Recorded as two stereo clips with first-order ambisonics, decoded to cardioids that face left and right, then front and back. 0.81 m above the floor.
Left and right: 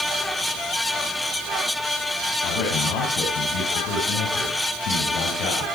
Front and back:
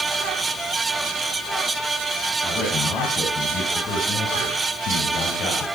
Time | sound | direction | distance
2.4 | a man speaking | 75° left | 7.5 m